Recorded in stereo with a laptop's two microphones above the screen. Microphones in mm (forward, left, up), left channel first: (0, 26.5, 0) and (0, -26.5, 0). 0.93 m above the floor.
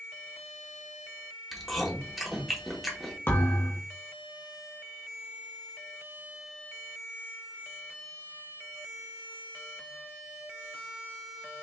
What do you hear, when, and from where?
1.5 s chewing: 5° right (ahead or behind), 1.0 m
3.3 s a thud: 40° left (ahead or behind), 1.8 m